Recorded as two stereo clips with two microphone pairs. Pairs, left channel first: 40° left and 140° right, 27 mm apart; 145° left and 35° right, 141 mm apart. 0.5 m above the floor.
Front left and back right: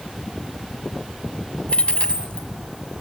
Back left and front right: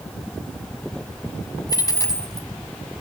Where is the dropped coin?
80° left, 1.4 m.